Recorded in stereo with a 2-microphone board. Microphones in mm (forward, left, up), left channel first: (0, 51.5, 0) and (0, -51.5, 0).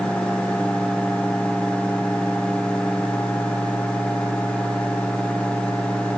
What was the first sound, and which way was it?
Only background noise.